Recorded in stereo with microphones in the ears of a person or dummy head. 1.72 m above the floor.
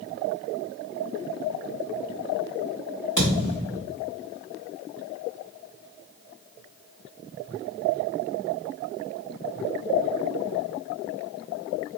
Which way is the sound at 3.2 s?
20° left (ahead or behind).